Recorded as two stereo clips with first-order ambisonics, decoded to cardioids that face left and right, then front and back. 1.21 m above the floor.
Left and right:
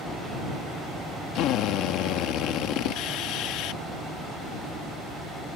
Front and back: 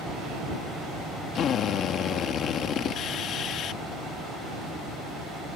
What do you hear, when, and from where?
1.4 s a drill: 55° left